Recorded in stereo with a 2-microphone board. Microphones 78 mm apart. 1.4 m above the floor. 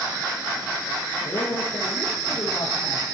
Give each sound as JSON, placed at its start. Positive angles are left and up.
{"t": 1.2, "sound": "a man speaking", "side_deg": 85, "distance_m": 1.3}